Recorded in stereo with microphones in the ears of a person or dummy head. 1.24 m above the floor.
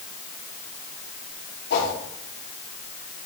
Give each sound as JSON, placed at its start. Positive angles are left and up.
{"t": 1.7, "sound": "a whoosh", "side_deg": 65, "distance_m": 6.0}